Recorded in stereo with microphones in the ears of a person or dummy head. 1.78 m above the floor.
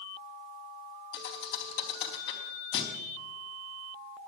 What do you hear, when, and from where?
1.1 s a thud: 60° left (ahead or behind), 3 m